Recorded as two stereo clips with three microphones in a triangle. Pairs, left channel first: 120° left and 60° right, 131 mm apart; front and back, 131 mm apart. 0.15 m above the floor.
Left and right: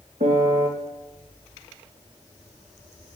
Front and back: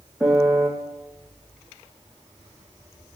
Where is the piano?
90° right, 3 m.